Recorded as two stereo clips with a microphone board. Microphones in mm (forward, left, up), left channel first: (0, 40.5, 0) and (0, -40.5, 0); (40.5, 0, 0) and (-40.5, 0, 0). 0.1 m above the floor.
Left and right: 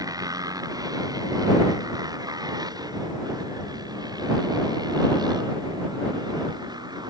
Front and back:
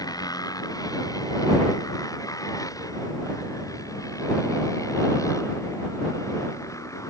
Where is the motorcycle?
45° right; by 7.1 s 55° right.